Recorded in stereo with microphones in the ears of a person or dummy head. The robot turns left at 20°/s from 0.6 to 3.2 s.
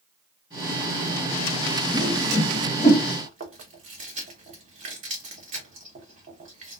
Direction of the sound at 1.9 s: 5° left (ahead or behind).